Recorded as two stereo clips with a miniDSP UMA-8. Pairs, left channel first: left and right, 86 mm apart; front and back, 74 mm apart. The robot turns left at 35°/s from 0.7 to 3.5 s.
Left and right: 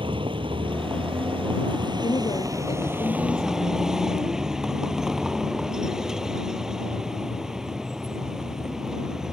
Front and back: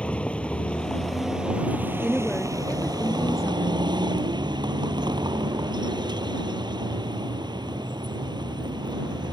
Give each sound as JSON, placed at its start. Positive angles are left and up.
{"t": 0.0, "sound": "a vehicle", "azimuth_deg": -75}
{"t": 2.0, "sound": "a woman speaking", "azimuth_deg": 95}